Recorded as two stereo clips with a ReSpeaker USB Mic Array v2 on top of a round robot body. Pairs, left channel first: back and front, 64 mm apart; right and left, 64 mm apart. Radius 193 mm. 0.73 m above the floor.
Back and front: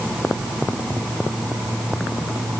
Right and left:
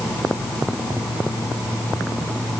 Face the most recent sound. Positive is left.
No sound to turn to.